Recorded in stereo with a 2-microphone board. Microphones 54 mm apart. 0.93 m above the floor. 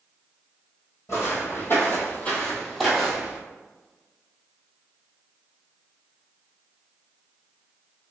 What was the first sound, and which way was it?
Footsteps, 60° left (ahead or behind).